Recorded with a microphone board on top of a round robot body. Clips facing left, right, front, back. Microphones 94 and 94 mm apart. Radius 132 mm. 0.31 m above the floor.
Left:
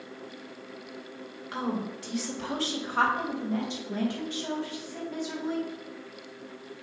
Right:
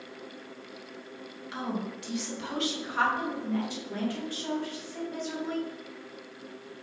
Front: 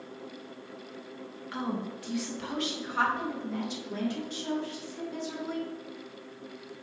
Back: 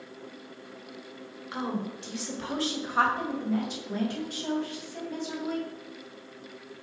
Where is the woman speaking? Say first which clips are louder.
Left 2 dB, back 1 dB; 115° left, 2.5 m; by 5.7 s 165° left, 4 m.